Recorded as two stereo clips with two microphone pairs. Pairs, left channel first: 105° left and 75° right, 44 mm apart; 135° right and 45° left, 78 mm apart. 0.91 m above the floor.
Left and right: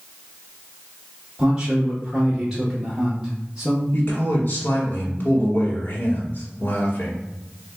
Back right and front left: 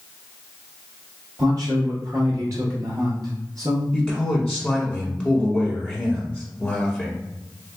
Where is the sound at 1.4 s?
5° left, 0.8 m.